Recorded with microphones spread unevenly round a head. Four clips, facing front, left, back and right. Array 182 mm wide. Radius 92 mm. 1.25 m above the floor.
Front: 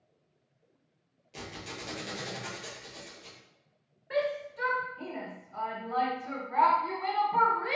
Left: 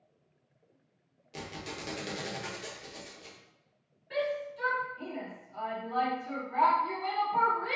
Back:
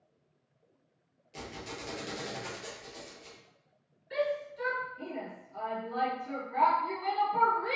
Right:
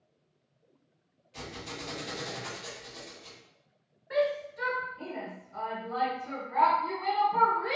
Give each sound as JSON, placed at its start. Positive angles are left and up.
{"t": 1.3, "sound": "a squeak", "azimuth_deg": 80, "distance_m": 0.9}
{"t": 4.1, "sound": "a shout", "azimuth_deg": -20, "distance_m": 1.2}